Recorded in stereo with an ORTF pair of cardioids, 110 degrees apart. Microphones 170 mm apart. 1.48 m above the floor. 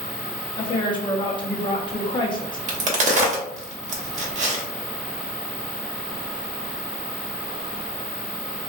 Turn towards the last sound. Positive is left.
turn(degrees=-45)